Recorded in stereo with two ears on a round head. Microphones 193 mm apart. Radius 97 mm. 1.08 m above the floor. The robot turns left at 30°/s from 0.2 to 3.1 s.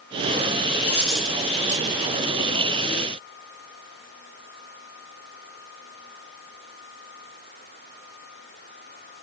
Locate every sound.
0.8 s a dropped coin: 10° left (ahead or behind), 2 m; by 2.0 s 20° right (ahead or behind), 2 m